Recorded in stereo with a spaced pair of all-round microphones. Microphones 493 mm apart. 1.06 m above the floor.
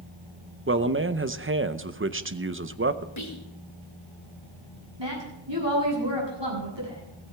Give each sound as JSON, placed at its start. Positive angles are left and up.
{"t": 0.7, "sound": "a man speaking", "side_deg": -25, "distance_m": 0.7}
{"t": 3.2, "sound": "whispering", "side_deg": 75, "distance_m": 2.0}
{"t": 5.0, "sound": "a woman speaking", "side_deg": -65, "distance_m": 8.0}